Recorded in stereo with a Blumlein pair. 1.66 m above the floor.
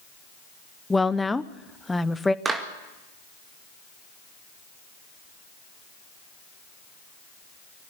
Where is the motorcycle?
I don't hear a motorcycle.